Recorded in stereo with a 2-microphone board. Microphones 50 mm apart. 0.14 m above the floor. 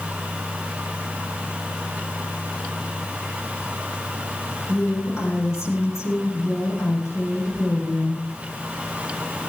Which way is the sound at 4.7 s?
70° left (ahead or behind).